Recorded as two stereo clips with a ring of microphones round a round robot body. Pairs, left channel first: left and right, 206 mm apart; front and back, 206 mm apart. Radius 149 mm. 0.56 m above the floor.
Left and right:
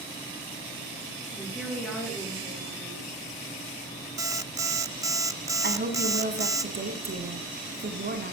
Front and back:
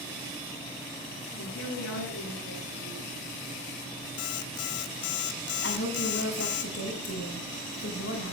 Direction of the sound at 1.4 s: 5° left.